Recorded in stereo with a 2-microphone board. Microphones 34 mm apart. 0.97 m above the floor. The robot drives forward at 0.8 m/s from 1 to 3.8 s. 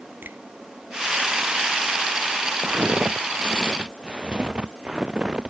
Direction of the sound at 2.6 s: 35° right (ahead or behind).